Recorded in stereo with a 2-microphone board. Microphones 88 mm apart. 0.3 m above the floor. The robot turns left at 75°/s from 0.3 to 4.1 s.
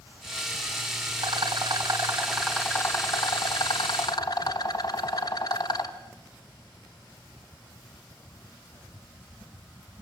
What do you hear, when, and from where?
1.2 s a rattle: 90° right, 1.6 m; by 5.9 s 50° left, 1.6 m